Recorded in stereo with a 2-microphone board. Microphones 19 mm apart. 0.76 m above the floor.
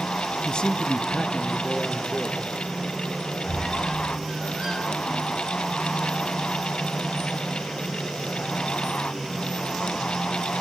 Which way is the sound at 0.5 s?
50° left (ahead or behind).